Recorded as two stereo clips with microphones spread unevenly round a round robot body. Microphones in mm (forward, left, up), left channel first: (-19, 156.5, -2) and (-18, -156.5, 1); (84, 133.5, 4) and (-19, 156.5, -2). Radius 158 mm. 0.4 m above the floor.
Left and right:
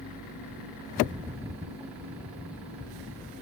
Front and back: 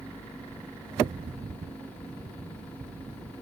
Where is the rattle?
170° right.